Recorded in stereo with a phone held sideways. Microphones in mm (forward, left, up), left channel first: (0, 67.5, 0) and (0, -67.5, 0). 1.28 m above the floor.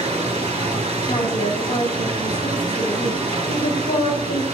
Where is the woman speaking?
80° left, 4.5 m.